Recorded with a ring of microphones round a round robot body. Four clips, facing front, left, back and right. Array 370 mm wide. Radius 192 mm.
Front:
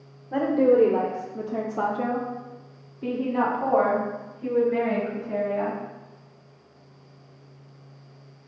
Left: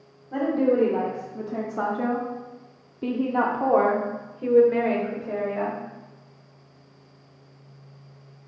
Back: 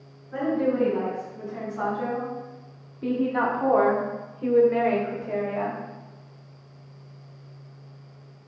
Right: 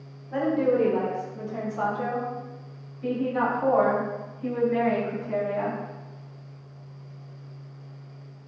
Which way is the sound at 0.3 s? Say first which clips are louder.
Left 1 dB, front 5 dB; 5° left.